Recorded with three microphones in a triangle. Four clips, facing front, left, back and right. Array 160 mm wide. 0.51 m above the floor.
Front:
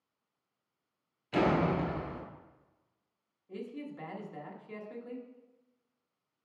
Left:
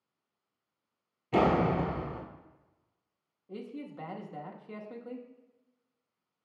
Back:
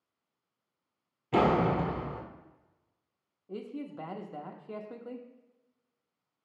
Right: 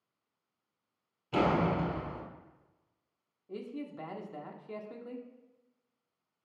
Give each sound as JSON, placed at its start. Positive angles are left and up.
{"t": 1.3, "sound": "a door slam", "azimuth_deg": 155, "distance_m": 1.1}
{"t": 3.5, "sound": "a man speaking", "azimuth_deg": -175, "distance_m": 0.7}